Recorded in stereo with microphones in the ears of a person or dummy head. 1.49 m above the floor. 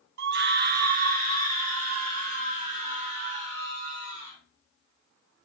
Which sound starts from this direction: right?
A scream, at 0.2 s.